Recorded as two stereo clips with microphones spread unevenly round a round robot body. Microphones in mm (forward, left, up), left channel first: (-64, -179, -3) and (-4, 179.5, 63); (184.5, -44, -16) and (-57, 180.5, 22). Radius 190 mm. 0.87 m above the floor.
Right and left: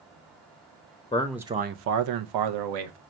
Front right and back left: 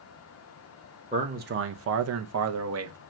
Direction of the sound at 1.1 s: 145° right.